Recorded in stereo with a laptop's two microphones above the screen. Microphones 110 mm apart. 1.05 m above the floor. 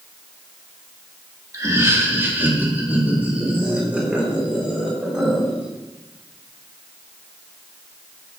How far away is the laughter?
About 1.1 m.